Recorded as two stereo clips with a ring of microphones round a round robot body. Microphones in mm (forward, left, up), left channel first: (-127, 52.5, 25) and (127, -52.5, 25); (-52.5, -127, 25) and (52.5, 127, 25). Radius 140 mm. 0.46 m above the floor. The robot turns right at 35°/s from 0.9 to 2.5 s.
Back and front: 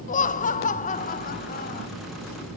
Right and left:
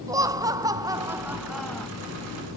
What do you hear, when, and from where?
0.1 s laughter: 130° left, 0.8 m; by 1.9 s 165° left, 0.8 m